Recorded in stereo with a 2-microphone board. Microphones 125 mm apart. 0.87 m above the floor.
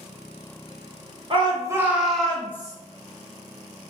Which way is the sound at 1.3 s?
45° right (ahead or behind).